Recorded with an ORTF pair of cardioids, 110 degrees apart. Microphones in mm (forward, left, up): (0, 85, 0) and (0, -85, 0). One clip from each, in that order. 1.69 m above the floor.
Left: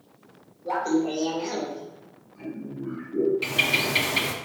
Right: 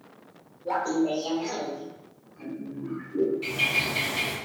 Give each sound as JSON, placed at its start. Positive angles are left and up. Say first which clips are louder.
{"t": 0.7, "sound": "laughter", "louder": "left 1 dB", "azimuth_deg": 10, "distance_m": 1.5}
{"t": 3.4, "sound": "a bird", "louder": "left 2 dB", "azimuth_deg": 60, "distance_m": 0.7}